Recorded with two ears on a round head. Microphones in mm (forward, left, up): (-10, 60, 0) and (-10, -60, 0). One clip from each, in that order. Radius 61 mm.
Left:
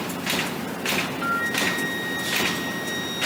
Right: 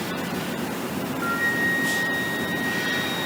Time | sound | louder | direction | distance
1.2 | a flute | right 3 dB | 10° left (ahead or behind) | 1.1 m